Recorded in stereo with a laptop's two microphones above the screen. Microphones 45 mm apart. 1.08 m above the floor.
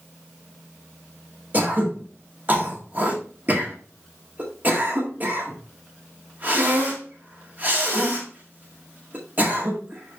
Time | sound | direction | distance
1.5 | throat clearing | 40° right (ahead or behind) | 1.5 m